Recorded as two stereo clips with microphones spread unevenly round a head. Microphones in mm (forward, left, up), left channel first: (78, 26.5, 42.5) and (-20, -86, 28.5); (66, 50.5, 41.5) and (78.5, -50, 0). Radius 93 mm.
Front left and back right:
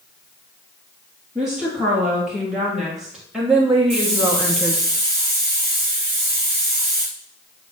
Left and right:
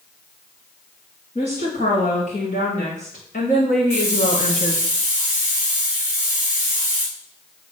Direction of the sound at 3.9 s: 170° left.